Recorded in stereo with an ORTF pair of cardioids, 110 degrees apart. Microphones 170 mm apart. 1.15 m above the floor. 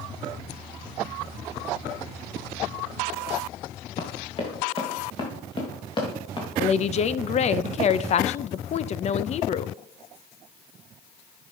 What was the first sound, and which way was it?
Running footsteps, 35° left.